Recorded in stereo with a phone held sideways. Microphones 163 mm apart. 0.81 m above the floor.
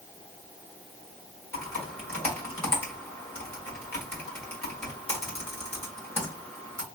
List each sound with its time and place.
1.5 s typing on a keyboard: 15° left (ahead or behind), 1.8 m